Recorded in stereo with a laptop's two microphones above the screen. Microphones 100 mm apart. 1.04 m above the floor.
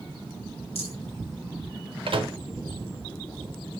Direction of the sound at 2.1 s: 65° right (ahead or behind).